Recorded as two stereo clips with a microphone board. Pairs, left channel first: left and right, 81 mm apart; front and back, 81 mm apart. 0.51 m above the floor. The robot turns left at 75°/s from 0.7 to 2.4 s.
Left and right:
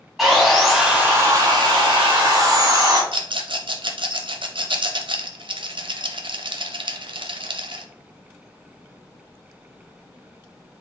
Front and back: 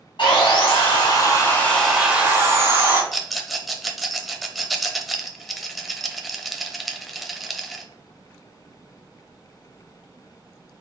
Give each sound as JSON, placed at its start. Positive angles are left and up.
{"t": 0.2, "sound": "sawing", "azimuth_deg": 0, "distance_m": 2.5}
{"t": 3.1, "sound": "a rattle", "azimuth_deg": -90, "distance_m": 0.7}